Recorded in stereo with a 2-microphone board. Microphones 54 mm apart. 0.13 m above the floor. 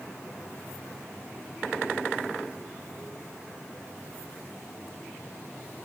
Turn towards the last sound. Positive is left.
No sound to turn to.